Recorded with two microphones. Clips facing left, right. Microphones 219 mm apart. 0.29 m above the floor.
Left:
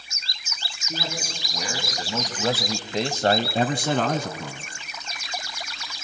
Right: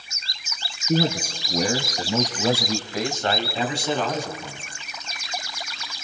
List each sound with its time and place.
0.9 s a man speaking: 50° right (ahead or behind), 3 m; by 4.6 s 65° left (ahead or behind), 3.5 m